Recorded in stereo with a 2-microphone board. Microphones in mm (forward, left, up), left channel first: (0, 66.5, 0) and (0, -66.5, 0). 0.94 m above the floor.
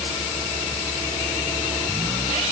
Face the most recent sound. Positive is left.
No sound to turn to.